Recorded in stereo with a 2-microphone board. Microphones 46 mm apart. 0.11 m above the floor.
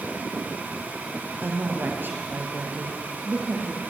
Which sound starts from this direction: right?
A woman speaking, at 1.4 s.